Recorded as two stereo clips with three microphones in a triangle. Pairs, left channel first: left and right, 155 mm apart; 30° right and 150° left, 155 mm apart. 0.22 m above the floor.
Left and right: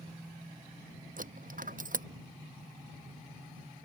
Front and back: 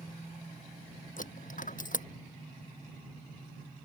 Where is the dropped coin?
60° right.